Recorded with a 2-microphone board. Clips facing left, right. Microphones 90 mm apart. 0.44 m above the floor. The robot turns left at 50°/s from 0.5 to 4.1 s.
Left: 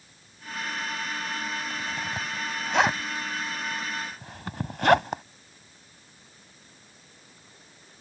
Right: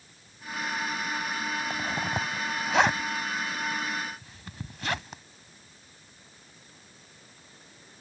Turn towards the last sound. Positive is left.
turn(degrees=65)  # may be behind; listen again after turning